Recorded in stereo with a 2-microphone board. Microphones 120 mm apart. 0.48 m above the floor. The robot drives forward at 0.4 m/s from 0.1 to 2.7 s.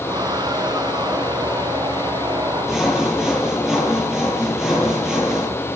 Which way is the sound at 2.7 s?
5° right (ahead or behind).